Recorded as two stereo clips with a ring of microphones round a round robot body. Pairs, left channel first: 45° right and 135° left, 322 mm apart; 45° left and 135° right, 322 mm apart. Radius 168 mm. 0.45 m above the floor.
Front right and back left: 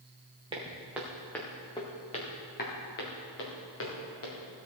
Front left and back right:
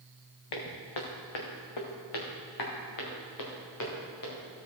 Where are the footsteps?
60° left, 2.5 m; by 4.4 s straight ahead, 4.5 m.